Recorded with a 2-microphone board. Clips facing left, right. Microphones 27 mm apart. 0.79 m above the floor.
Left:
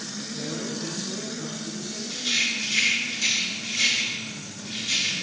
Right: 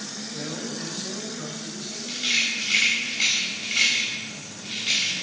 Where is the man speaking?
45° right (ahead or behind), 4.5 m.